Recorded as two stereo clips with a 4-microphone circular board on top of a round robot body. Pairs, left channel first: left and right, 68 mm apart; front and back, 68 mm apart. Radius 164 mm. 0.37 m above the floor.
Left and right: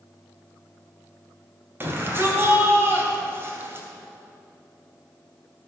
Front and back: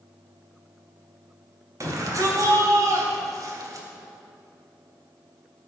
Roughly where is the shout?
Behind right.